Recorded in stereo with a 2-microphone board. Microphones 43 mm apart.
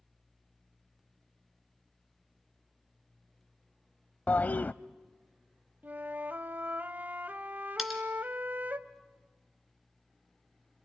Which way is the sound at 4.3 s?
40° left (ahead or behind).